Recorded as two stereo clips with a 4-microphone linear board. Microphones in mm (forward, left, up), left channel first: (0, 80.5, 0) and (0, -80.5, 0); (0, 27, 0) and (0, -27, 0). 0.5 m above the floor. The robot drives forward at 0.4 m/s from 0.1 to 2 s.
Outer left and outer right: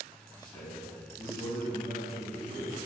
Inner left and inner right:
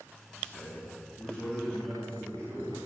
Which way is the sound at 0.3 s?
30° left (ahead or behind).